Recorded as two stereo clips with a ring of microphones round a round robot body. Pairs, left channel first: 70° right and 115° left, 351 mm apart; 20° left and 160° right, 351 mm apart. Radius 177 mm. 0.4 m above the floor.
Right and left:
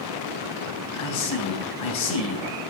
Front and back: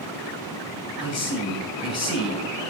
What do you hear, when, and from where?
1.0 s a man speaking: 35° right, 3 m